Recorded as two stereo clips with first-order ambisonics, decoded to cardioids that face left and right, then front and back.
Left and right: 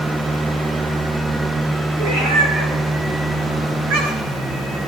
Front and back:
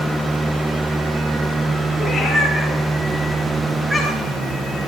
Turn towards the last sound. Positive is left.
turn(degrees=-95)